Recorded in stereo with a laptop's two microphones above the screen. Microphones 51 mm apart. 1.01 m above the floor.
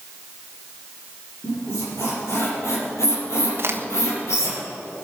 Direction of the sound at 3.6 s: 55° right (ahead or behind).